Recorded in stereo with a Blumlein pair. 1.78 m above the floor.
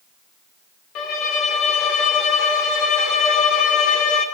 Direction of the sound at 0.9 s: 40° left.